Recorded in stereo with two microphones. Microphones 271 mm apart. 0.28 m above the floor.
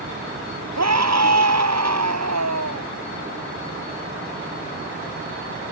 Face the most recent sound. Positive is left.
turn(degrees=-75)  # may be behind; listen again after turning